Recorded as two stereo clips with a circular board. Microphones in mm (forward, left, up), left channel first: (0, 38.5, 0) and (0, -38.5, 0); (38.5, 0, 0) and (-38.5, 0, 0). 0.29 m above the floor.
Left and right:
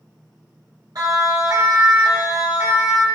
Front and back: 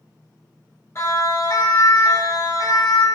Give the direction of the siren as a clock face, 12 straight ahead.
2 o'clock.